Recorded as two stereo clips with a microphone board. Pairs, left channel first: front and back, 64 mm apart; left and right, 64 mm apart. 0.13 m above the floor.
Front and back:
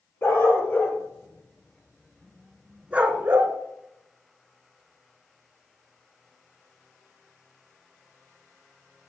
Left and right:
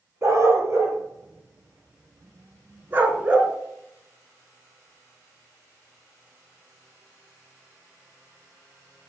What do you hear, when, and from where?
0.2 s a dog barking: 50° right, 1.6 m; by 3.5 s 160° right, 0.7 m